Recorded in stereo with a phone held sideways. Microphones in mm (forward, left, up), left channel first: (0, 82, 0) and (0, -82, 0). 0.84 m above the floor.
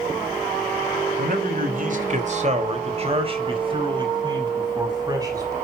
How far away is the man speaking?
About 2.5 m.